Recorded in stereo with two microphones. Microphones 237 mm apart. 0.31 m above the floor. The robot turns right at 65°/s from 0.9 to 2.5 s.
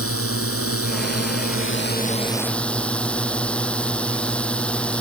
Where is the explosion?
No explosion in this recording.